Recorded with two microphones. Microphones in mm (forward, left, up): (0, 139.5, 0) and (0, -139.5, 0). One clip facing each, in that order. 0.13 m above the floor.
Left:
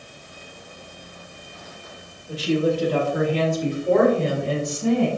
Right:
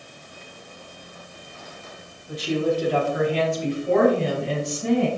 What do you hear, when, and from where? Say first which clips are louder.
2.3 s a woman speaking: left 2 dB; 35° left (ahead or behind), 4 m; by 5.1 s 65° left (ahead or behind), 4.5 m